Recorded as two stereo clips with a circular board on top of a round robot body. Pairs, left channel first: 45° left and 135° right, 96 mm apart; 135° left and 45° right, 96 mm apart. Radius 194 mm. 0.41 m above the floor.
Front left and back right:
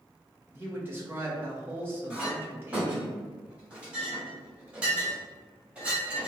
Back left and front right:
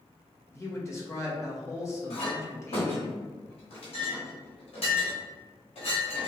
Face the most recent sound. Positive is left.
turn(degrees=145)